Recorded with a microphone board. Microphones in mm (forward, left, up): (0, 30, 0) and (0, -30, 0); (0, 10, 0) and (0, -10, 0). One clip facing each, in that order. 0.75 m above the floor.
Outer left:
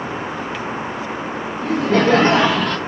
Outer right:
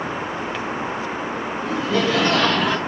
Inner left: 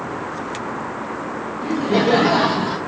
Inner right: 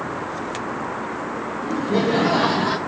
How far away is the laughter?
About 1.1 m.